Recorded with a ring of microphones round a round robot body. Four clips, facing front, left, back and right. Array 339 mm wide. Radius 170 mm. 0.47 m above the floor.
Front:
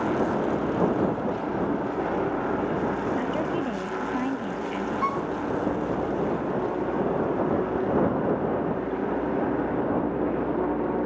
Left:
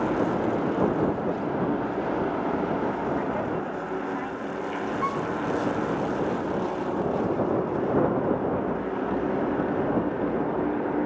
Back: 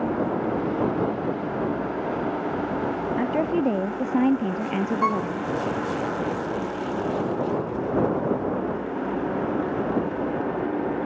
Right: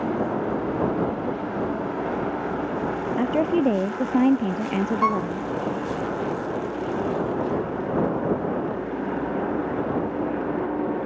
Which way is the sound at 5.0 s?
115° right.